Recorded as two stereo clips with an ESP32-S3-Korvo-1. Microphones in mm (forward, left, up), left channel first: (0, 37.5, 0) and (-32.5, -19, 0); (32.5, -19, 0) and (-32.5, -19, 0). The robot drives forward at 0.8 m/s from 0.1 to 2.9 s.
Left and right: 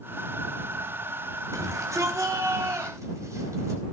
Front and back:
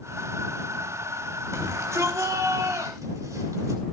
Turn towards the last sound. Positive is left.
turn(degrees=-155)